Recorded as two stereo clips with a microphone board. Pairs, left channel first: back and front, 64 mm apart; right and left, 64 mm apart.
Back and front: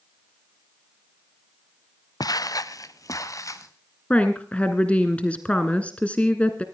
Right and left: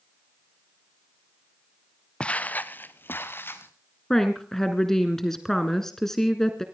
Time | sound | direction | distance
2.2 | footsteps | 165° right | 0.8 m
4.1 | a woman speaking | 160° right | 1.3 m